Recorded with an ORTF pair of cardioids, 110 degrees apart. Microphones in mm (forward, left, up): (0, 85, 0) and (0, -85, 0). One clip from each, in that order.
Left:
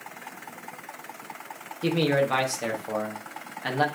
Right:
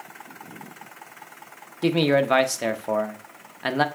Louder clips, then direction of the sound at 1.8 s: Right 3 dB; 30° right.